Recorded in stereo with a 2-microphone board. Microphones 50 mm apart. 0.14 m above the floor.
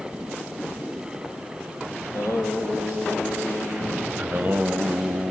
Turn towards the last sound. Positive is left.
turn(degrees=-25)  # may be behind; listen again after turning